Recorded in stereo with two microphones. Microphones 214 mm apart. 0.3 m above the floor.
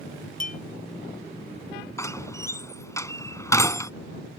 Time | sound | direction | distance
0.4 | a clink | 40° left (ahead or behind) | ?
2.0 | a door slam | 15° left (ahead or behind) | ?